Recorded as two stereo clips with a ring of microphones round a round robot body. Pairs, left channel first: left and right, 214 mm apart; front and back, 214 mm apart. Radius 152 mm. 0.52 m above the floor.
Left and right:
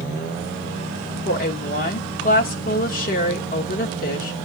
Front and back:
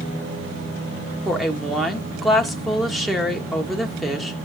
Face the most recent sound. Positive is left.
turn(degrees=90)